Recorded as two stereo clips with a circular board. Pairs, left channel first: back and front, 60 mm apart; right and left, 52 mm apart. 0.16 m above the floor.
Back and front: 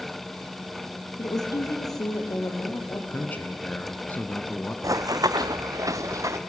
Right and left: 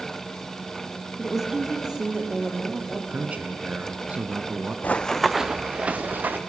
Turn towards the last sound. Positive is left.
turn(degrees=35)